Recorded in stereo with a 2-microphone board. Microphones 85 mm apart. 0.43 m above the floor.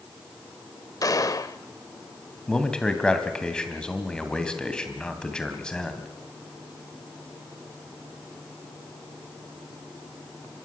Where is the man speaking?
10° left (ahead or behind), 2.5 m.